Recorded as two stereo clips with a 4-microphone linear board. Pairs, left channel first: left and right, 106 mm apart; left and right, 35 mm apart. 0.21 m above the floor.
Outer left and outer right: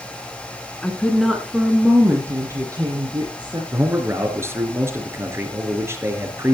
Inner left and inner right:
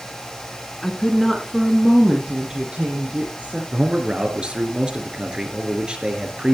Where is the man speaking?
25° right (ahead or behind), 4 m.